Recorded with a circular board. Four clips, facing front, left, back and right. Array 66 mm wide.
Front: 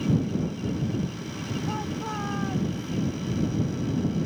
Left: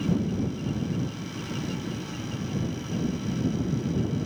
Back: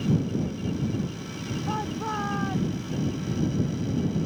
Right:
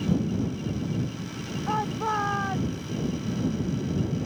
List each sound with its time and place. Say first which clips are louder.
1.7 s a shout: right 7 dB, back 4 dB; 100° right; by 2.9 s 105° right